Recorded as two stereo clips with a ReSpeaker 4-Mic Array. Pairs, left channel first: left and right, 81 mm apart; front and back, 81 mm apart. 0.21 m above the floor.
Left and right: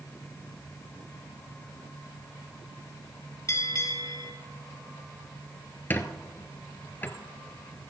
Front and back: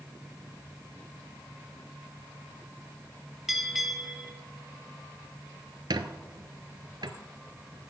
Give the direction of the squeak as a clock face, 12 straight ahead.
7 o'clock.